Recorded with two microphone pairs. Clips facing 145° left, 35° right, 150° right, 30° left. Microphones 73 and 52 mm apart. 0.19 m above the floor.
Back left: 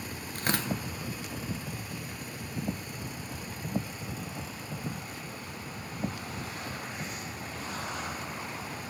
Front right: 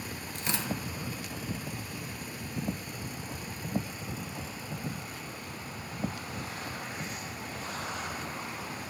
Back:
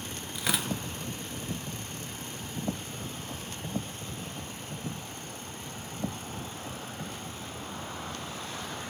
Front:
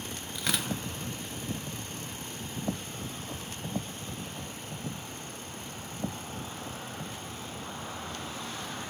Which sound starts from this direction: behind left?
Tearing paper, at 0.3 s.